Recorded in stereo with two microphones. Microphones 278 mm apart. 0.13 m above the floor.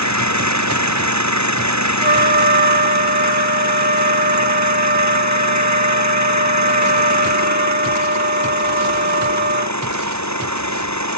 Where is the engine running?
70° right (ahead or behind).